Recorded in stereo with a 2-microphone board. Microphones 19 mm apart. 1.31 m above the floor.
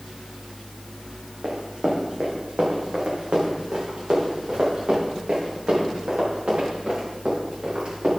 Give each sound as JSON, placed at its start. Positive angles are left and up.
{"t": 1.4, "sound": "running footsteps", "side_deg": -70, "distance_m": 3.5}